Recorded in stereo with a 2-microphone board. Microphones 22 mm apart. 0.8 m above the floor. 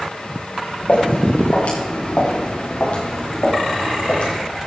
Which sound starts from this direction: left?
Footsteps, at 0.9 s.